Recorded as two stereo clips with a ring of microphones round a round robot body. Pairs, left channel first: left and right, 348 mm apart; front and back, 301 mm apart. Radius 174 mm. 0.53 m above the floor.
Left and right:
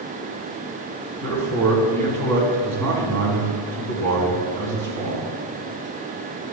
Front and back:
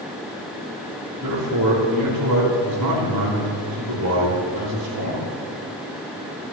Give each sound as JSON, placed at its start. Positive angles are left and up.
{"t": 1.2, "sound": "a man speaking", "azimuth_deg": -135, "distance_m": 4.5}